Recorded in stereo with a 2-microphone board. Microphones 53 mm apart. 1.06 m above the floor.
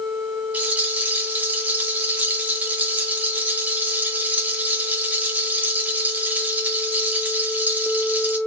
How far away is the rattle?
About 1.7 m.